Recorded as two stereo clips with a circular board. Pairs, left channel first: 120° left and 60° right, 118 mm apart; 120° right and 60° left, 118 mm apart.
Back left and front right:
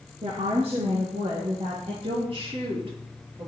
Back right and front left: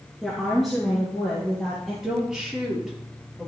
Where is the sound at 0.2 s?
25° right, 2.5 m; by 1.9 s 35° right, 4 m.